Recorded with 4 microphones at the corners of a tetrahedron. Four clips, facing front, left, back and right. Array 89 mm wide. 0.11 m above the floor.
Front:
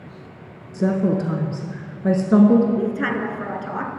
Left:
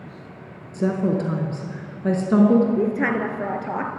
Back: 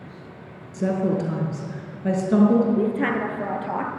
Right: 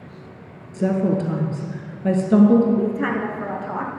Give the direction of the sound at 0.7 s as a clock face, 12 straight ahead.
11 o'clock.